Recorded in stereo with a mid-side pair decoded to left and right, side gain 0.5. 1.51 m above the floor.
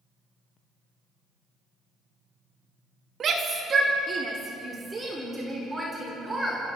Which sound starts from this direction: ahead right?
A shout, at 3.2 s.